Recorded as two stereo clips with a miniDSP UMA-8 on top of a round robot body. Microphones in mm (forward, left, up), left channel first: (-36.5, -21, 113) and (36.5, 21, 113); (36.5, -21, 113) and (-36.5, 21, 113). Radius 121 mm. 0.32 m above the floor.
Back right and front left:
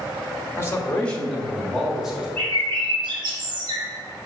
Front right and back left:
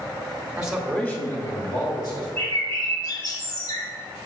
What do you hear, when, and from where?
0.6 s a man speaking: 150° right, 1.2 m; by 2.3 s 50° right, 2.5 m
2.4 s a bird: 5° left, 1.5 m